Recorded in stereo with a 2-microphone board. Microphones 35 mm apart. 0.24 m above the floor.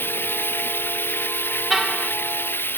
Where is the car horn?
5° right (ahead or behind).